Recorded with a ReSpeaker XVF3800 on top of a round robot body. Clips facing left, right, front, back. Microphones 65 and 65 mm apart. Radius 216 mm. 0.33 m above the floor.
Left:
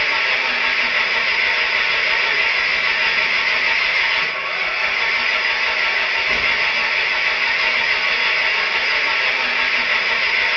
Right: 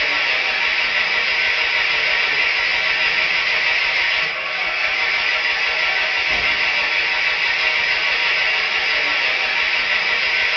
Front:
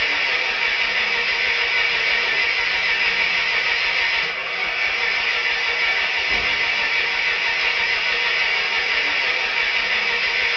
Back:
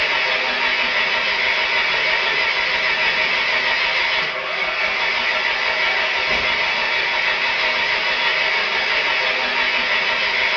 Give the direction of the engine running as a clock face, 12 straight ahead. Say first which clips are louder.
Left 1 dB, back 2 dB; 7 o'clock.